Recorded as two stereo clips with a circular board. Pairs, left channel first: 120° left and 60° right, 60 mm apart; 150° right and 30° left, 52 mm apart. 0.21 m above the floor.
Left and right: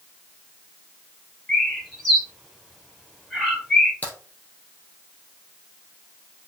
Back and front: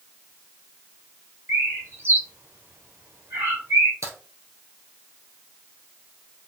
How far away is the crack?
About 2.5 m.